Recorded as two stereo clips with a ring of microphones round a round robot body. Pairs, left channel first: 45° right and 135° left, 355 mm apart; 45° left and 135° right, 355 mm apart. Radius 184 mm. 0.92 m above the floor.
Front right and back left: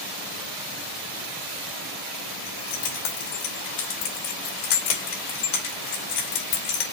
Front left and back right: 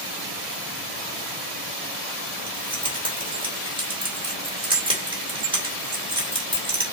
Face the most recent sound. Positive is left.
turn(degrees=-60)